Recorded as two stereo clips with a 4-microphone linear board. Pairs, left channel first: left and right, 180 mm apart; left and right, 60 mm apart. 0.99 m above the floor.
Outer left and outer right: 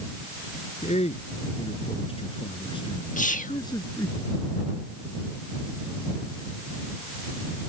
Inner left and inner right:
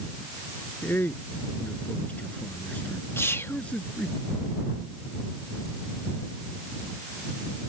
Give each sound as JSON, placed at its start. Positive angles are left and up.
{"t": 0.8, "sound": "a man speaking", "side_deg": 40}
{"t": 3.2, "sound": "whispering", "side_deg": 45}